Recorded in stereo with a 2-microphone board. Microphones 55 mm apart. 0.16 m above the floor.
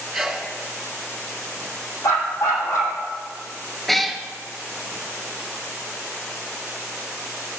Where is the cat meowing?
5° left (ahead or behind), 0.7 m.